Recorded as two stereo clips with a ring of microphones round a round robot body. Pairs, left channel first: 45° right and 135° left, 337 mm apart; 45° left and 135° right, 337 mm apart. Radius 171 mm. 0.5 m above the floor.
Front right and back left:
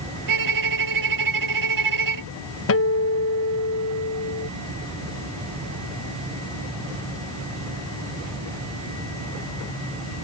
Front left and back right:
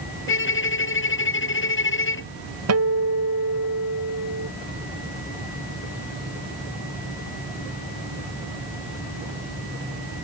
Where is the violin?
100° left.